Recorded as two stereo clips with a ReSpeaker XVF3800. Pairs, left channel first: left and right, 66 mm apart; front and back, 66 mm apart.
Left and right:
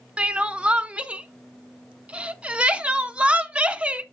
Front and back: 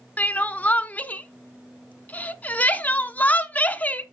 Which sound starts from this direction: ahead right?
Crying, at 0.2 s.